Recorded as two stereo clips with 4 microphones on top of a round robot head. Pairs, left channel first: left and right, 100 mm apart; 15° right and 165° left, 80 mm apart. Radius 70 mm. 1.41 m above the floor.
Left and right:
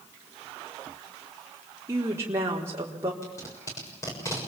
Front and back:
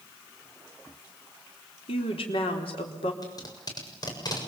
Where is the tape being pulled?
25° left, 7 m.